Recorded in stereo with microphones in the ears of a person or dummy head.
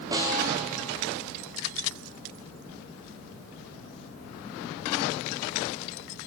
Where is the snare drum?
20° right (ahead or behind), 0.5 m.